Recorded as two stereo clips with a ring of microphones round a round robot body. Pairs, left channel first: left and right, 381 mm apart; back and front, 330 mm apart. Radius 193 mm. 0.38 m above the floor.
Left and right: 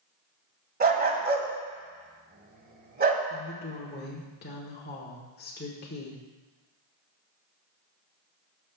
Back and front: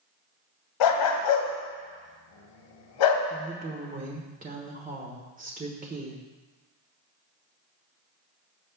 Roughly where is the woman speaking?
Ahead left.